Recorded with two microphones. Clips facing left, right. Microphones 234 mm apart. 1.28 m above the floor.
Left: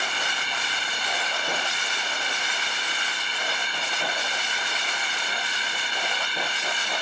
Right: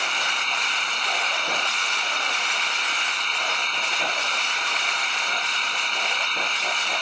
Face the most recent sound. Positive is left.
turn(degrees=10)  # may be behind; listen again after turning